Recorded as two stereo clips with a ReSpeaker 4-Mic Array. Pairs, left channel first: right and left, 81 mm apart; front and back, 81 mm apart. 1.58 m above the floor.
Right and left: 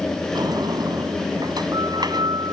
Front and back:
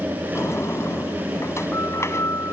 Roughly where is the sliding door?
Ahead left.